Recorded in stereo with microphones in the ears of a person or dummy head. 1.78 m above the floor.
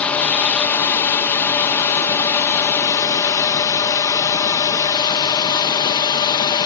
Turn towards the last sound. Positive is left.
turn(degrees=25)  # may be behind; listen again after turning